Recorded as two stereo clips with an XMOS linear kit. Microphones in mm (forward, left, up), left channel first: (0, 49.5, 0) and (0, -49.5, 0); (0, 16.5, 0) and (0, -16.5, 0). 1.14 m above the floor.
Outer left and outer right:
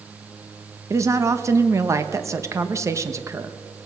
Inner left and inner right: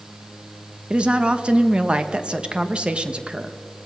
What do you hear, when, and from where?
0.9 s a woman speaking: 30° right (ahead or behind), 1.1 m